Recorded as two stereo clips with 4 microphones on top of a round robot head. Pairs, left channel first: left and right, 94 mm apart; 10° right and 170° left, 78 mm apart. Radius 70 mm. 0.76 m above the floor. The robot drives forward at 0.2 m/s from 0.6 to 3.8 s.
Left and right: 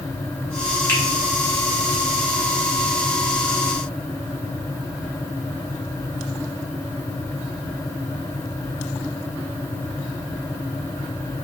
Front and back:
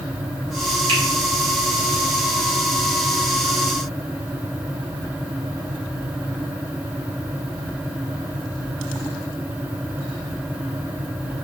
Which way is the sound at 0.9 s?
160° left.